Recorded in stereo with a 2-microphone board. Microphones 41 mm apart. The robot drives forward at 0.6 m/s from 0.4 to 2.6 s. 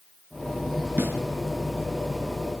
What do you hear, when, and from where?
1.0 s a snare drum: 70° right (ahead or behind), 3.5 m